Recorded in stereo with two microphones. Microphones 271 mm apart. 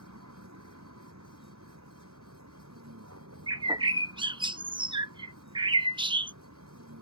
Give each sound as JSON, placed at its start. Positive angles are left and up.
{"t": 0.0, "sound": "a vehicle", "side_deg": -80}
{"t": 3.5, "sound": "a bird", "side_deg": -15}